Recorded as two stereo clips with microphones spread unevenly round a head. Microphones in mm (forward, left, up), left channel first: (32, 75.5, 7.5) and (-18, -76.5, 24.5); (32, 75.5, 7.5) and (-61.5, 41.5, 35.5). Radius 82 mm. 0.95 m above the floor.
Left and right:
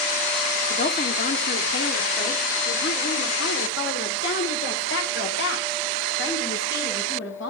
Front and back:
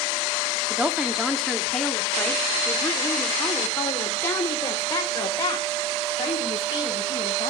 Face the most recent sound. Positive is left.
turn(degrees=75)